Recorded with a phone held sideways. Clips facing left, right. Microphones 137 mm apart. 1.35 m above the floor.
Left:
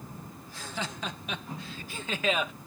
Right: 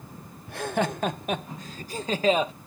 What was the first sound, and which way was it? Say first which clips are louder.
Laughter: right 12 dB; 65° right (ahead or behind).